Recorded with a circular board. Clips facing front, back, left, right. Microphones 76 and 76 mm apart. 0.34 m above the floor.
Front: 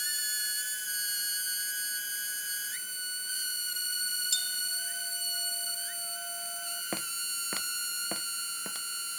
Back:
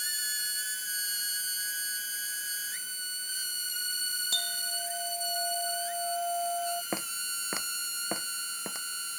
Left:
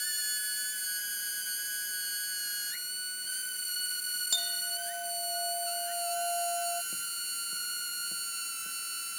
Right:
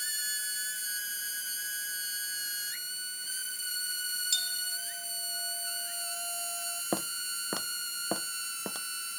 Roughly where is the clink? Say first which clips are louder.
Back 2 dB, left 1 dB; behind left.